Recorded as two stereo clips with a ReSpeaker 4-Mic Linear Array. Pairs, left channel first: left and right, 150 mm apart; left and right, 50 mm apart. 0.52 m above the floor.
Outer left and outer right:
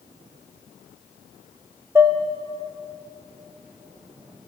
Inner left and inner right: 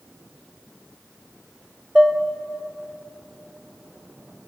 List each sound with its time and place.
1.9 s dishes clattering: 15° right (ahead or behind), 1.4 m